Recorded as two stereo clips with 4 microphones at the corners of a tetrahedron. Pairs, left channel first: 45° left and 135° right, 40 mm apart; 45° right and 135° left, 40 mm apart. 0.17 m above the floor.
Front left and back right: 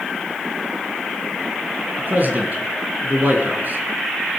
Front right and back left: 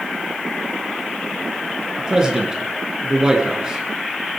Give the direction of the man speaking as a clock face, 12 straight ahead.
5 o'clock.